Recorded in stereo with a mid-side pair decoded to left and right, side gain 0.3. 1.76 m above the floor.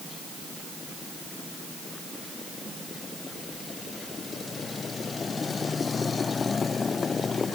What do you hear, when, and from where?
Only background noise.